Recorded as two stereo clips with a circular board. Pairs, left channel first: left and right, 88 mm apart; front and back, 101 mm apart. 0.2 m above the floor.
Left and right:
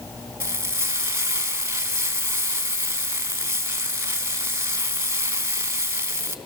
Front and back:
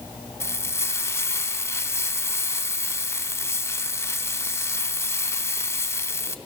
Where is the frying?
45° right, 1.2 m.